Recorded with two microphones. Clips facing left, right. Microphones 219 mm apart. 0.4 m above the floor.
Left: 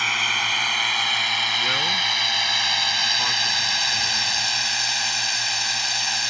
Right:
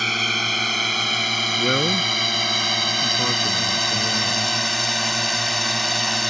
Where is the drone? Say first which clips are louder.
Right 6 dB; 40° right (ahead or behind); by 6.3 s 65° right (ahead or behind).